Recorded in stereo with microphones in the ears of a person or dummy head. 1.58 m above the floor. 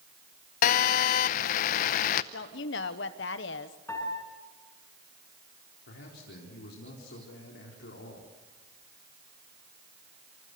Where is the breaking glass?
I don't hear breaking glass.